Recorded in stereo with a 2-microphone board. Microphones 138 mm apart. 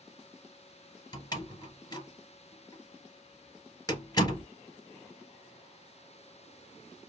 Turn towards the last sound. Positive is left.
turn(degrees=25)  # may be behind; listen again after turning